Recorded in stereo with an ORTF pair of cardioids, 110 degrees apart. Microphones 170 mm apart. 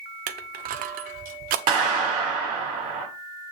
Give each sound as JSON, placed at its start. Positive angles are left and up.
{"t": 0.3, "sound": "crushing", "azimuth_deg": -70, "distance_m": 0.8}
{"t": 1.7, "sound": "a clap", "azimuth_deg": -65, "distance_m": 5.5}